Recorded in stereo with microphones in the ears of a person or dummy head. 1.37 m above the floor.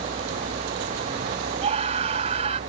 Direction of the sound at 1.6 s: 35° right (ahead or behind).